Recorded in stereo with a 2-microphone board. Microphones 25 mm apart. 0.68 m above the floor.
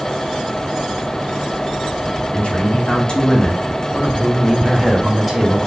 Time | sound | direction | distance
2.3 | a man speaking | 45° left (ahead or behind) | 1.5 m